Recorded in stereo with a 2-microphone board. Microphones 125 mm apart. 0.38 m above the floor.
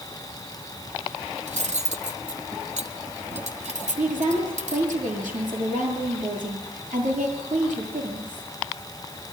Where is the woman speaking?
80° right, 8 m.